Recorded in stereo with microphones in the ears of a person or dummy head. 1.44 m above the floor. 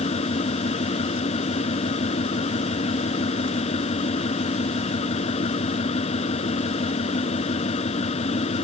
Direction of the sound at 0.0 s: 35° left (ahead or behind).